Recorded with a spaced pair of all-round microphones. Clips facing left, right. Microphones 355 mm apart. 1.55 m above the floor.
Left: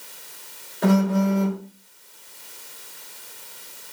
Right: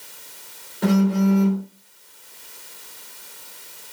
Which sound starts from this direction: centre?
A phone buzzing, at 0.8 s.